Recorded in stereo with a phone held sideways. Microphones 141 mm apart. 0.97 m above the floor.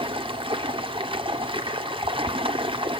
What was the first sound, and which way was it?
Running water, 35° right (ahead or behind).